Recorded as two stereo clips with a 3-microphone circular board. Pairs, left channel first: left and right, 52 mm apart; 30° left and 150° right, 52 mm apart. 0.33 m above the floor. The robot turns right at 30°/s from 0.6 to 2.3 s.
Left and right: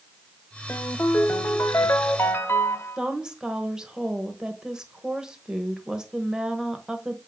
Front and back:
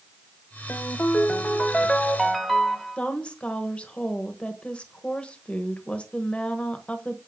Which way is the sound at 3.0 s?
20° right.